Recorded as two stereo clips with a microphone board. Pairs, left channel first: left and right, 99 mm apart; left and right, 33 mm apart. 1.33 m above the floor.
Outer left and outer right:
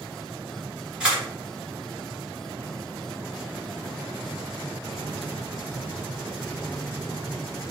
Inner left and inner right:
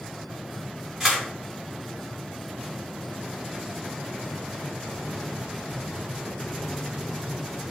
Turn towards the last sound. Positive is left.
turn(degrees=-10)  # may be behind; listen again after turning